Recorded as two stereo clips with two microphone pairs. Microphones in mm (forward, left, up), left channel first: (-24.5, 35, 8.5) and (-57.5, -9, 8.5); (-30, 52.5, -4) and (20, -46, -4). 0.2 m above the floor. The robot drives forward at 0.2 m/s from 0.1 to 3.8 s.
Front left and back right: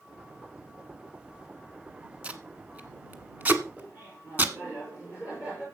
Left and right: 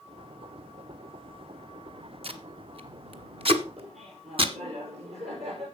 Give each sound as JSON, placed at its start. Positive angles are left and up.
{"t": 2.2, "sound": "tape being pulled", "azimuth_deg": -65, "distance_m": 1.4}
{"t": 3.8, "sound": "laughter", "azimuth_deg": -60, "distance_m": 5.0}